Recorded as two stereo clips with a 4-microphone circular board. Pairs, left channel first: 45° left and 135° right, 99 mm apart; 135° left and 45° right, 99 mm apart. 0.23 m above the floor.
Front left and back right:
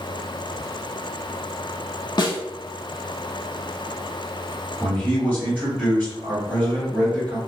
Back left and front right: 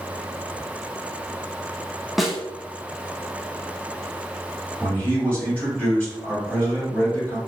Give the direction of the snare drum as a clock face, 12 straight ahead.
10 o'clock.